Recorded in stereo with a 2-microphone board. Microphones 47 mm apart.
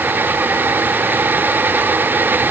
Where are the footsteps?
No footsteps in this recording.